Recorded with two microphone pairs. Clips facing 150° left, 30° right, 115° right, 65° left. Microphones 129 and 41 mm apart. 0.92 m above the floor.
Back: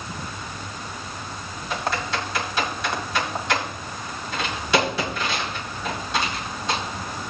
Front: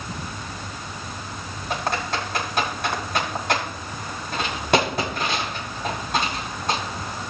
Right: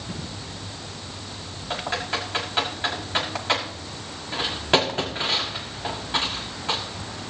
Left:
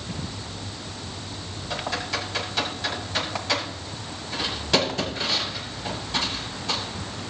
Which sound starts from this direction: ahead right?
Typing on a keyboard, at 1.7 s.